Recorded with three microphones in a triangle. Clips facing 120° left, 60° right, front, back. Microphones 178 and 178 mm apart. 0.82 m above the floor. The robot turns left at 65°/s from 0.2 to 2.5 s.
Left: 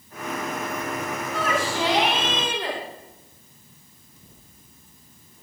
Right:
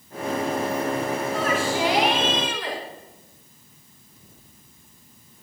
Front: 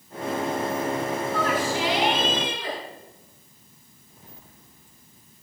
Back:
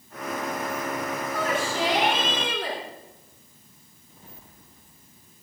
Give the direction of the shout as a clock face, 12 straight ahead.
4 o'clock.